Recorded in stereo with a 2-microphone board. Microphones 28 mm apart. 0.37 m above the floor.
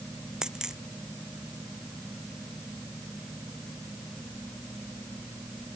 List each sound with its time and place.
0.4 s a dropped coin: 25° right (ahead or behind)